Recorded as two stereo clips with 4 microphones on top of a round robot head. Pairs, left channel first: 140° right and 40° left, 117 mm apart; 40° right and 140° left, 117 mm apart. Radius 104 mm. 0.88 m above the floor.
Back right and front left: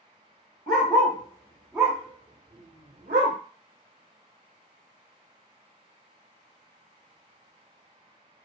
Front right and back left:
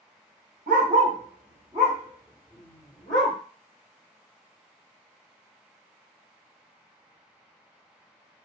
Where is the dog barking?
165° left, 0.9 m; by 3.4 s 15° left, 0.8 m.